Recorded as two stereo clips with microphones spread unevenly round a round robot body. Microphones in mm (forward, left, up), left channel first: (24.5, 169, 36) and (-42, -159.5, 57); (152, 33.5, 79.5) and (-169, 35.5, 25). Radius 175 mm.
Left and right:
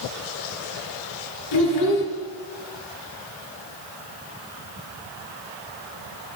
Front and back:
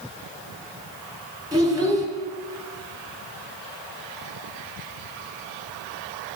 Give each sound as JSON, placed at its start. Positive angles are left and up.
{"t": 1.5, "sound": "a child speaking", "azimuth_deg": 105, "distance_m": 1.9}